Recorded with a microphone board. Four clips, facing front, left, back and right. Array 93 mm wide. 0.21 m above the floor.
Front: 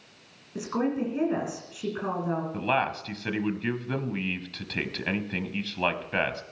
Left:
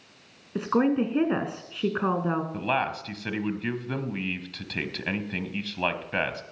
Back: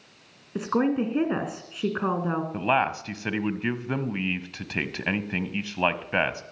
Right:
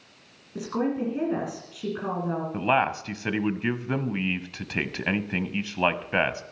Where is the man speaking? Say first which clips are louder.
Right 4 dB, back 4 dB; 130° right, 1.0 m.